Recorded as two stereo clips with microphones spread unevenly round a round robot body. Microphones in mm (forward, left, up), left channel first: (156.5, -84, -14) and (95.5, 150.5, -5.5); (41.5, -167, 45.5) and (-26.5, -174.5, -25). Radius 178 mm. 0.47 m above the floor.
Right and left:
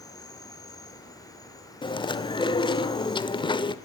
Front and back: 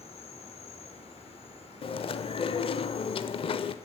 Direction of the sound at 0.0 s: 5° right.